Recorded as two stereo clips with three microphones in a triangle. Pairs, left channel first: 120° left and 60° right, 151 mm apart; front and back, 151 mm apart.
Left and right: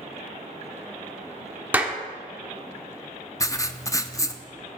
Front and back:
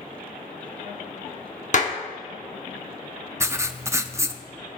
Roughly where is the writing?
Behind left.